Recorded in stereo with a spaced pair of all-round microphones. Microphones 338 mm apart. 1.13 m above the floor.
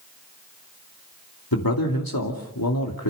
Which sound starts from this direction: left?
A man speaking, at 1.5 s.